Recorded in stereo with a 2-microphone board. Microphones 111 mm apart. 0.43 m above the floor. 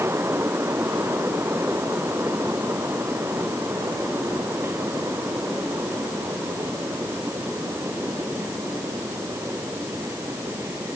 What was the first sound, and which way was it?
Only background noise.